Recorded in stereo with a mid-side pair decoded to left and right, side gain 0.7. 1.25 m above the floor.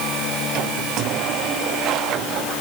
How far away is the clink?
I don't hear a clink.